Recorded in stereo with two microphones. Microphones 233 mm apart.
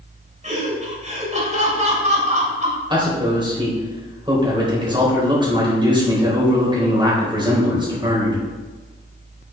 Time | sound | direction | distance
0.4 | laughter | 30° right (ahead or behind) | 3 m
2.9 | a man speaking | 20° right (ahead or behind) | 4 m